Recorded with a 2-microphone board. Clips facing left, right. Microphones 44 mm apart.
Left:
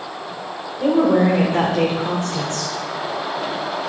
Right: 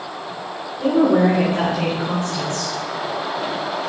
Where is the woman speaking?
20° left (ahead or behind), 1.5 m; by 2.8 s 60° left (ahead or behind), 1.5 m.